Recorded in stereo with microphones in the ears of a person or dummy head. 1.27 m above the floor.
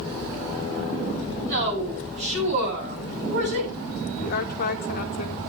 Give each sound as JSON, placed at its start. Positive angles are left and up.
{"t": 1.4, "sound": "a woman speaking", "side_deg": -50, "distance_m": 7.5}
{"t": 4.2, "sound": "a woman speaking", "side_deg": 50, "distance_m": 1.3}